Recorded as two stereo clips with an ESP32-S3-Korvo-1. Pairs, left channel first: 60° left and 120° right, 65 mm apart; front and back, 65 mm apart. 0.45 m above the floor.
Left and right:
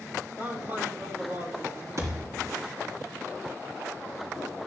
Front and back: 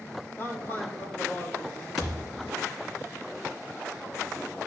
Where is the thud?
85° right, 4 m.